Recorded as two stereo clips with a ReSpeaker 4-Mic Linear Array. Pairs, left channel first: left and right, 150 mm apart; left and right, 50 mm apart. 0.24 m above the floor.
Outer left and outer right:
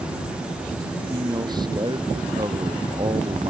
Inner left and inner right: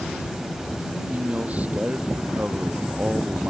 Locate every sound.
0.9 s a man speaking: 30° right (ahead or behind); by 3.5 s 35° right (ahead or behind)